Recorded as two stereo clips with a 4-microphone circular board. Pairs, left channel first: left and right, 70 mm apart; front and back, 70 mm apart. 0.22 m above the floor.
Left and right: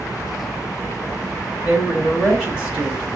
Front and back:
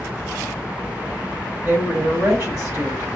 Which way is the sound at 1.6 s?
155° right.